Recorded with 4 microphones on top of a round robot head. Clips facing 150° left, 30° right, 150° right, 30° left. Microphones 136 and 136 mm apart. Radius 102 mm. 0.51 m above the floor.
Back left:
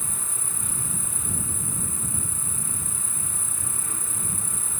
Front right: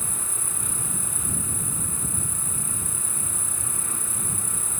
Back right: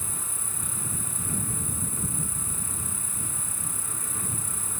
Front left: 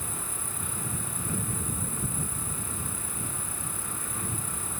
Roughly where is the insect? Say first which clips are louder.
Front right 2 dB, front left 2 dB; behind.